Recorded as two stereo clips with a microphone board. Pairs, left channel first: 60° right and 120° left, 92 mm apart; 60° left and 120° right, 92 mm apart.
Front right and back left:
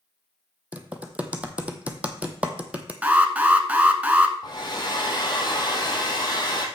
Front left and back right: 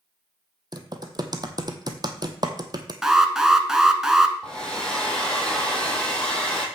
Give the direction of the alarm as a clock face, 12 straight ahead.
6 o'clock.